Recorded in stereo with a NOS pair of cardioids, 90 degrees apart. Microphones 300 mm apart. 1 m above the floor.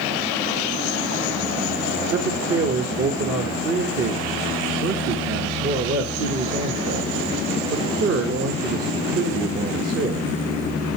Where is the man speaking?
55° right, 1.4 m.